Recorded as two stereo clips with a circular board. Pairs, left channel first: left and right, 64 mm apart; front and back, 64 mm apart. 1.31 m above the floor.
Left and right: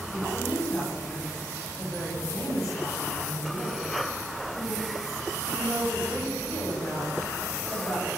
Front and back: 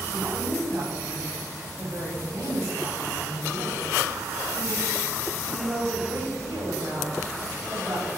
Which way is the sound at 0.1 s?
135° left.